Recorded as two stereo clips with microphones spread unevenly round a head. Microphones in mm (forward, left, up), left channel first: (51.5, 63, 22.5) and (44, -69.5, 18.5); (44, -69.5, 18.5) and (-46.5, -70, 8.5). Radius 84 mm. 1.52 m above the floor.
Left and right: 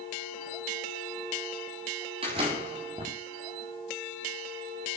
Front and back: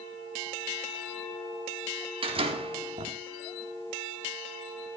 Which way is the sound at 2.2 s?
155° right.